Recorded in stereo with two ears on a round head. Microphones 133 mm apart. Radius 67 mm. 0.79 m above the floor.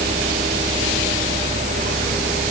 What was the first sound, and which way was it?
Only background noise.